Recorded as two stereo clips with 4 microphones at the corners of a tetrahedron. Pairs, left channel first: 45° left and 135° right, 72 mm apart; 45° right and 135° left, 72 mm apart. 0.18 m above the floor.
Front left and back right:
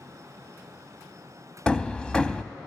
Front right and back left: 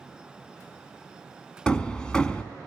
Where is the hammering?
Straight ahead, 0.5 m.